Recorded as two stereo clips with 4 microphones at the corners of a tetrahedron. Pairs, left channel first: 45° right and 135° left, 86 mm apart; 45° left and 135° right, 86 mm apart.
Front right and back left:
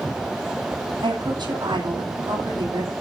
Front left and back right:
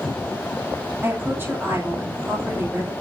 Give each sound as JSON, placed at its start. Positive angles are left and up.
{"t": 1.0, "sound": "a woman speaking", "azimuth_deg": 160, "distance_m": 8.0}